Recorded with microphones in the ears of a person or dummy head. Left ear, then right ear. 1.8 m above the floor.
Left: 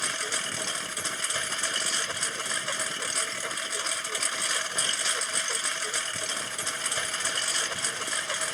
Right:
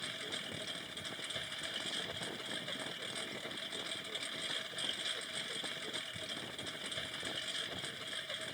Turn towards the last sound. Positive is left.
turn(degrees=45)  # may be behind; listen again after turning